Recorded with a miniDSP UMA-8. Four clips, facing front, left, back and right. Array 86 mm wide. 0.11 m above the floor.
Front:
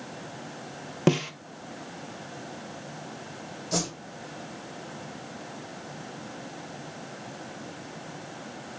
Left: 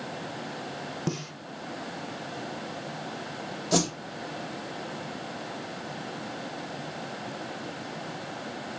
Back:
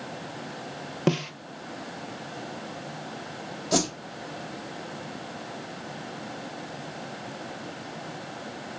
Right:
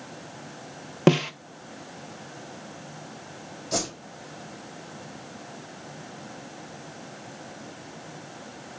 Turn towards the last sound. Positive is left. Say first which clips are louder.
# left 4 dB, back 5 dB
turn(degrees=135)